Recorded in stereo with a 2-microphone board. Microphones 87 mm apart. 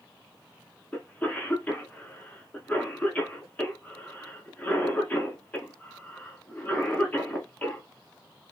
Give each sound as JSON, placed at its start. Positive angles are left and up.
{"t": 0.9, "sound": "a cough", "side_deg": 15, "distance_m": 1.1}